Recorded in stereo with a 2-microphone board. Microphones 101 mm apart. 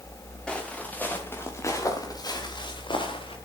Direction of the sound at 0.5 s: 10° left (ahead or behind).